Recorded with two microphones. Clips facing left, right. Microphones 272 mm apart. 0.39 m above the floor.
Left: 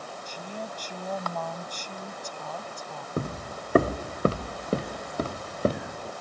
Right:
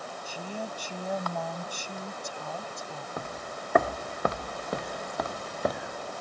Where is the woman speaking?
10° right (ahead or behind).